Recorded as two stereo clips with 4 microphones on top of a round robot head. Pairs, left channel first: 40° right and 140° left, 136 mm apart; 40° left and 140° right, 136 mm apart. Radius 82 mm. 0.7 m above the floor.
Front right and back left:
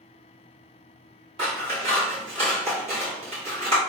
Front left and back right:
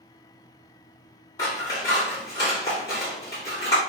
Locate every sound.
1.4 s scissors: 105° left, 1.9 m